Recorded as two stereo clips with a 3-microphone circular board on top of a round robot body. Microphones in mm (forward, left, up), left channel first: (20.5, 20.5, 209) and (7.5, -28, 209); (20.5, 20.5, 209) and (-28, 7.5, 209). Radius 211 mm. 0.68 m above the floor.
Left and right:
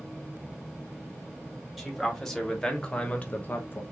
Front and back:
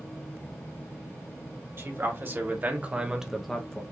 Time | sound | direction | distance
1.8 | a man speaking | 165° left | 2 m